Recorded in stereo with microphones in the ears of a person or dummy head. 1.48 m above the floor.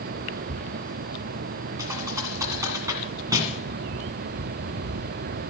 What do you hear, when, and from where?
1.8 s a thud: 20° right (ahead or behind), 2.5 m